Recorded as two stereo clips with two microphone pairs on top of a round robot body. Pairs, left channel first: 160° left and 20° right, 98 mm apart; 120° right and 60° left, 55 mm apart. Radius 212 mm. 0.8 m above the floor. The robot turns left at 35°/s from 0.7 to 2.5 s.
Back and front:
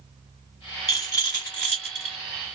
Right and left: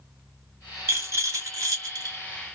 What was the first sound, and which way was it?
A rattle, 105° left.